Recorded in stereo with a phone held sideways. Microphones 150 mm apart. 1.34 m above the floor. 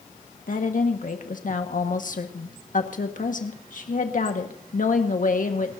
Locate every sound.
0.5 s a woman speaking: 60° left (ahead or behind), 1.5 m